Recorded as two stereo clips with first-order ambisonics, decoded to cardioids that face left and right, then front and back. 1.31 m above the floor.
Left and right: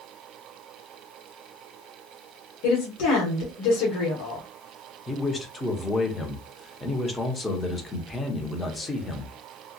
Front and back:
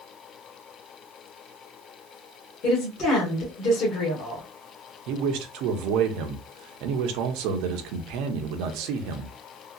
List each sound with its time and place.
2.6 s a woman speaking: 60° left, 1.7 m
5.1 s a man speaking: 165° left, 0.8 m